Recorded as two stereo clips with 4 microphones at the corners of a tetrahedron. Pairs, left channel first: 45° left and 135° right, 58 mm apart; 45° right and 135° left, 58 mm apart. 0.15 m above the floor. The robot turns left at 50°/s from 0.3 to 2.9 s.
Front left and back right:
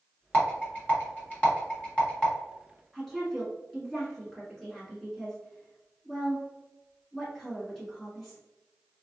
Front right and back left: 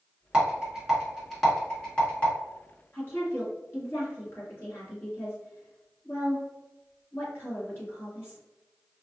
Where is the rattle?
85° left, 1.5 m; by 2.3 s 10° right, 1.5 m.